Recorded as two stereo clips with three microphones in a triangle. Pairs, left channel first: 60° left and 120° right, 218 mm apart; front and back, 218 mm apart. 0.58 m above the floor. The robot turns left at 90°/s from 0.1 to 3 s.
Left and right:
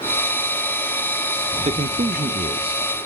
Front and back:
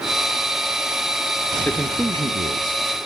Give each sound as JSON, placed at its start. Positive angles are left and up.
{"t": 1.6, "sound": "a man speaking", "azimuth_deg": -75, "distance_m": 0.8}